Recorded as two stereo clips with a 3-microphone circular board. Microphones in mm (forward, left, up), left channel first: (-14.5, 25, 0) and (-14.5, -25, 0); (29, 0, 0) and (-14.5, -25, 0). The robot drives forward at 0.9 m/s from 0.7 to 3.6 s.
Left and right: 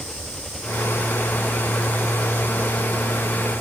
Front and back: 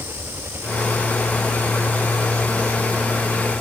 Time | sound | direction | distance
0.0 | an engine running | 170° left | ?